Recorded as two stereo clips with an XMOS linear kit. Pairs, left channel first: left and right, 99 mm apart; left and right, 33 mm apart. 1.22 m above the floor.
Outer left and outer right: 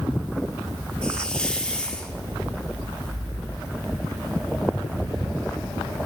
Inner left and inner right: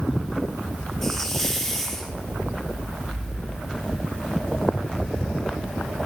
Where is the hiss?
10° left (ahead or behind), 2.5 m.